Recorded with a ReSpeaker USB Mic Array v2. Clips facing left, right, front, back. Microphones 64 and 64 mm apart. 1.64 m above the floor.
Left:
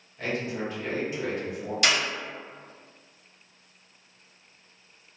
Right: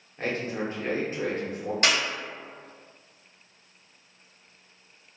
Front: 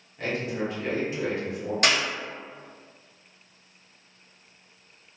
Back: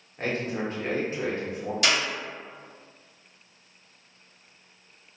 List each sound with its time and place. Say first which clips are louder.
0.2 s a man speaking: right 1 dB, even; 135° right, 1.0 m
1.8 s a clap: even, front 1 dB; 45° right, 1.2 m